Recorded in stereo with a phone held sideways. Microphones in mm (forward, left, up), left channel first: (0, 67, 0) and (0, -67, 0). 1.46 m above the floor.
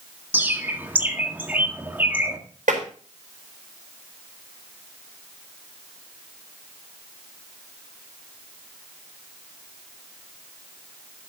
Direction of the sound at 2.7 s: 85° right.